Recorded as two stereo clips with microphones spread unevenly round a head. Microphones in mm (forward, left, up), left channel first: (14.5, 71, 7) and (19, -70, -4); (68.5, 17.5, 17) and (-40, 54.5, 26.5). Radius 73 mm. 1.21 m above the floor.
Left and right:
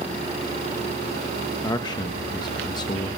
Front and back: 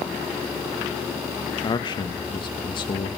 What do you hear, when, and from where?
1.6 s a man speaking: 30° left, 1.4 m